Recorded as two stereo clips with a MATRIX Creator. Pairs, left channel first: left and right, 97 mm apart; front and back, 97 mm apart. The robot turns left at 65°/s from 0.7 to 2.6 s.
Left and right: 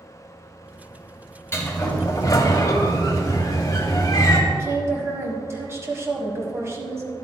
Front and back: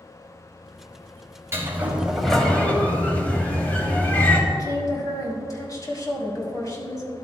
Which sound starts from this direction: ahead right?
A woman speaking, at 4.5 s.